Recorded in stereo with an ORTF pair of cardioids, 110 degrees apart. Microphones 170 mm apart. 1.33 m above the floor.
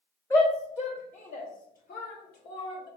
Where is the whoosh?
I don't hear a whoosh.